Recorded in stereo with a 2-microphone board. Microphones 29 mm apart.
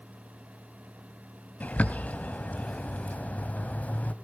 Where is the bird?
65° left (ahead or behind), 1.3 m.